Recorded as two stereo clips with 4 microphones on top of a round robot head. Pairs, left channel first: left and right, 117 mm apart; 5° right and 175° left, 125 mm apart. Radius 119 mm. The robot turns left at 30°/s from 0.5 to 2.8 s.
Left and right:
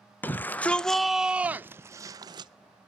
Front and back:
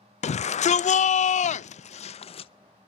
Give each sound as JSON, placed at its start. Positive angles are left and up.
{"t": 0.2, "sound": "a shout", "azimuth_deg": 15, "distance_m": 0.5}